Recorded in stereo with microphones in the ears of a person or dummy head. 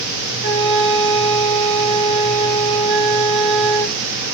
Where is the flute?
75° right (ahead or behind), 1.5 m.